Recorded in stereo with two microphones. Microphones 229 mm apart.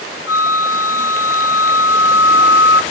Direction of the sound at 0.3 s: 75° left (ahead or behind).